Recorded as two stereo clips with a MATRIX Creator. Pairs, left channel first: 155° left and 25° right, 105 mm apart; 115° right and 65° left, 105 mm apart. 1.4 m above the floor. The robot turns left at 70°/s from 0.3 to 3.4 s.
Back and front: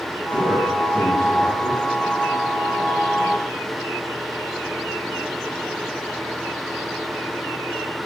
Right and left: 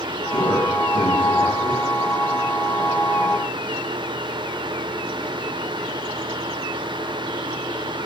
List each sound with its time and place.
0.3 s a man speaking: 90° right, 7.5 m; by 1.8 s 165° left, 7.5 m